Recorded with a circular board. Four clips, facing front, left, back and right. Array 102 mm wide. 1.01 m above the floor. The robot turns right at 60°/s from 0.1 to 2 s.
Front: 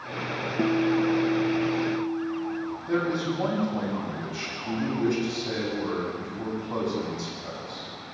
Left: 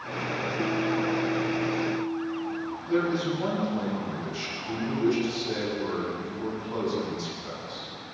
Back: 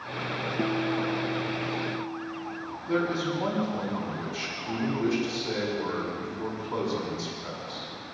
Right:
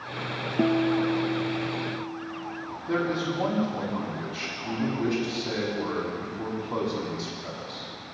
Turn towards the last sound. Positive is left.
turn(degrees=-45)